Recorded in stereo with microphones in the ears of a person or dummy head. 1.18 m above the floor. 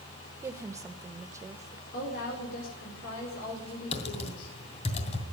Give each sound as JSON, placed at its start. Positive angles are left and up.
{"t": 0.4, "sound": "a woman speaking", "side_deg": -15, "distance_m": 1.0}
{"t": 1.9, "sound": "a woman speaking", "side_deg": 65, "distance_m": 4.5}
{"t": 3.9, "sound": "typing on a keyboard", "side_deg": 35, "distance_m": 2.5}